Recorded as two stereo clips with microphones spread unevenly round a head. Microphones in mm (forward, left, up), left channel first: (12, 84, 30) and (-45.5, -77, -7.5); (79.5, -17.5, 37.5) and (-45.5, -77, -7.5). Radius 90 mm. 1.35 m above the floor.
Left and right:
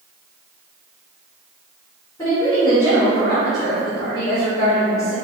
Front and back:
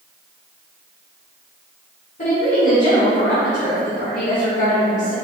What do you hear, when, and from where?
2.2 s a woman speaking: straight ahead, 1.6 m